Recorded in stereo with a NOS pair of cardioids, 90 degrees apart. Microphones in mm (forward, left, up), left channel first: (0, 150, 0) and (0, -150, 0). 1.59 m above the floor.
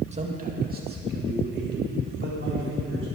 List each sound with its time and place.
0.1 s a man speaking: 20° right, 2 m; by 3.1 s 45° right, 5 m